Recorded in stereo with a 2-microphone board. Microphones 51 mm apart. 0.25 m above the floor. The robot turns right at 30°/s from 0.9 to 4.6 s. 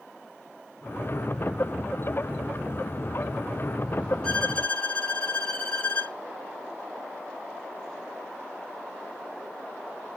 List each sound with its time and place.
4.2 s a violin: 15° left (ahead or behind), 0.8 m; by 6.2 s 25° left (ahead or behind), 0.8 m